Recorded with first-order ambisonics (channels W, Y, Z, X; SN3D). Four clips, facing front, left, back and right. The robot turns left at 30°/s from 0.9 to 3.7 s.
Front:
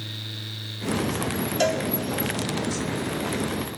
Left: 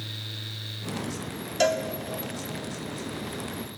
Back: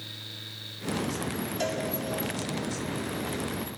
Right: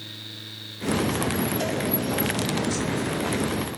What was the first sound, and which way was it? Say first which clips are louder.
A cowbell: left 3 dB, front 8 dB; 45° left.